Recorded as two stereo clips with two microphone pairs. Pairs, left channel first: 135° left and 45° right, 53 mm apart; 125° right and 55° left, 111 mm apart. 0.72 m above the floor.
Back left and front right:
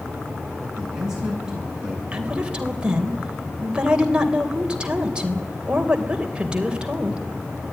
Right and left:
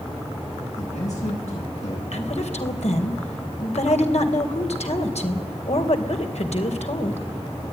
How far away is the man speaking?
About 9.5 m.